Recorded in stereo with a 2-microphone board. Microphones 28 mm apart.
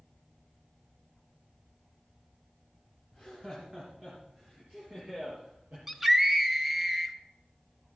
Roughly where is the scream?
Centre.